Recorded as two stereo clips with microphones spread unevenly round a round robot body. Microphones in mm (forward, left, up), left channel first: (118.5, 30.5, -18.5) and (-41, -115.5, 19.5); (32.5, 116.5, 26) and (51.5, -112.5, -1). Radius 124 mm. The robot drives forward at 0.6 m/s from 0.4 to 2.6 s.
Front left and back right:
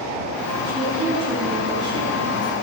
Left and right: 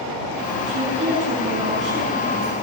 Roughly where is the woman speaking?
Right.